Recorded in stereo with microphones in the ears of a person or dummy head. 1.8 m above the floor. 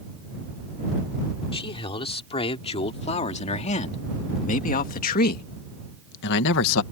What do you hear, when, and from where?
1.5 s a man speaking: 30° left (ahead or behind); by 6.8 s 75° left (ahead or behind)